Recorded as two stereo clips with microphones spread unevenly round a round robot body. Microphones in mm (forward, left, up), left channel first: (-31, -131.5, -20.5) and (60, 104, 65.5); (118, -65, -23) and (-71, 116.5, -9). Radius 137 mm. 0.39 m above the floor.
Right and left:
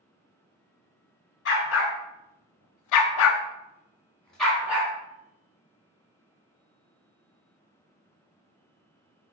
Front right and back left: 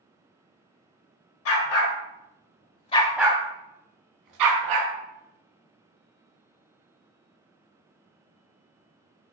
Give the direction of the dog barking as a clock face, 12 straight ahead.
2 o'clock.